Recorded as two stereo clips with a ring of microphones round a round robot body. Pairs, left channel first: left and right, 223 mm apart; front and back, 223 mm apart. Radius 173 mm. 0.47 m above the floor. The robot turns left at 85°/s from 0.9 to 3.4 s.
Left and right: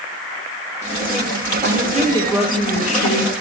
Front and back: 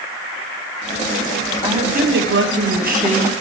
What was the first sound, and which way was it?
A woman speaking, 110° right.